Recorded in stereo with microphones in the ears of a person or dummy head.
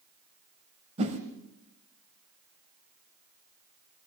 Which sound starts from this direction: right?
A whoosh, at 1.0 s.